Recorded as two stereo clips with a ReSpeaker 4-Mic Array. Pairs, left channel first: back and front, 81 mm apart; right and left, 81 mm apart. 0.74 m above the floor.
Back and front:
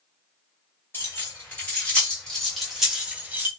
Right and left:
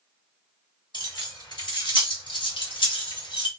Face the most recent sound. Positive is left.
turn(degrees=-65)